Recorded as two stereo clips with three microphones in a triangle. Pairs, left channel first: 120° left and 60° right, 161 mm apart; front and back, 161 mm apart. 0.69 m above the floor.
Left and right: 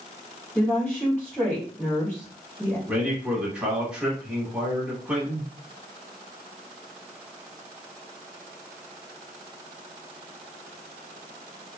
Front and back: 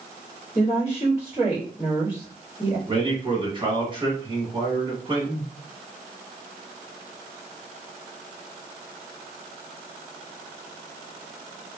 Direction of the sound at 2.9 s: 140° right.